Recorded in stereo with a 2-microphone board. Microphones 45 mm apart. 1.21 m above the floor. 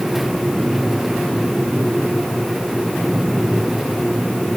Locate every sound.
Only background noise.